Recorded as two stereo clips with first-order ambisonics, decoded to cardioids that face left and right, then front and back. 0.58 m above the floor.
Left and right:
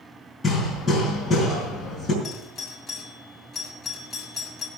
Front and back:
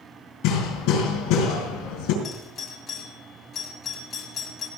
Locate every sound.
0.4 s hammering: 10° left, 5 m
2.2 s a doorbell: 30° left, 1.8 m